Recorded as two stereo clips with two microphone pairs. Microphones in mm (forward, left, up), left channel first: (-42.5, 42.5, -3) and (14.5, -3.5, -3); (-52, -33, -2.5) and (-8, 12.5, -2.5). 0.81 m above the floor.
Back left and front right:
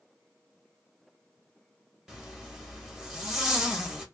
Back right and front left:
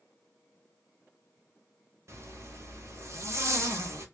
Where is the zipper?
45° left, 0.9 m.